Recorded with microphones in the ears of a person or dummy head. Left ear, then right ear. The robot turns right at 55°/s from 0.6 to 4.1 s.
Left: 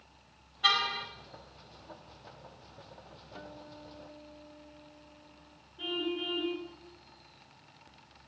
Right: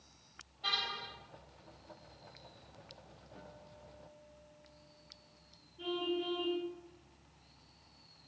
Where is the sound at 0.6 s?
50° left (ahead or behind), 5 m; by 1.1 s 25° left (ahead or behind), 5 m.